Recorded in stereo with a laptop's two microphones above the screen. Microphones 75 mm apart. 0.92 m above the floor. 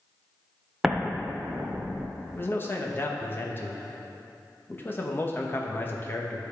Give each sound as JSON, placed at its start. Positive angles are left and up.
{"t": 0.8, "sound": "an explosion", "side_deg": -10, "distance_m": 0.6}
{"t": 2.3, "sound": "a man speaking", "side_deg": 30, "distance_m": 0.8}